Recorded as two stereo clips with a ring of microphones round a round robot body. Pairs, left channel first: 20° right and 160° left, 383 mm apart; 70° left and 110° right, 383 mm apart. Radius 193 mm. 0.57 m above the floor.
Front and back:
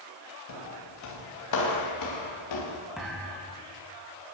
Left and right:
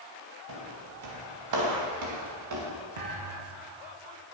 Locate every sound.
0.5 s footsteps: 70° right, 8 m; by 2.7 s 65° right, 8 m
3.0 s a thud: 115° right, 7 m